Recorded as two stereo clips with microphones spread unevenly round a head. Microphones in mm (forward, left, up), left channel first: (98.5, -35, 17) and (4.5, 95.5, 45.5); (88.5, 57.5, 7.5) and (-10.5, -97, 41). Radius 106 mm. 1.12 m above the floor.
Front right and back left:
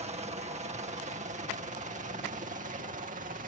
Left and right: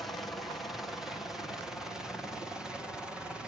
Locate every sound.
0.0 s a helicopter: 125° left; by 3.5 s 140° left